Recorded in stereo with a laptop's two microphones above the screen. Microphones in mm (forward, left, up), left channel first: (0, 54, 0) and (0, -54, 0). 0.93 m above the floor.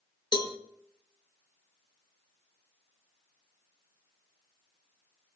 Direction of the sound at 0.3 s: 45° left (ahead or behind).